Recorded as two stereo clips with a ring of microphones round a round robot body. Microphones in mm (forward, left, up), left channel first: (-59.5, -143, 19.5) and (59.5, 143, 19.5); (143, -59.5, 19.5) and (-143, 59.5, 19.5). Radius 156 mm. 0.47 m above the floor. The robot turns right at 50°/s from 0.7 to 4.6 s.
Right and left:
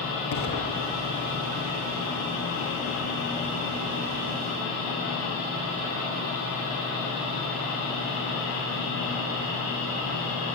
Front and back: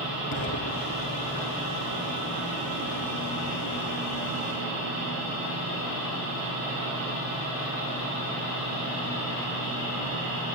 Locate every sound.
0.3 s an explosion: 65° right, 7 m; by 1.8 s 10° right, 7 m